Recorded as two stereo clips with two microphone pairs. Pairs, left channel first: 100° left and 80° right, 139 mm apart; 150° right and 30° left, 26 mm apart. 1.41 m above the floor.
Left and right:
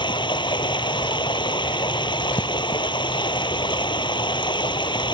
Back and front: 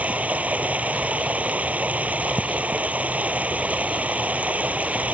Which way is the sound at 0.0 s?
45° left.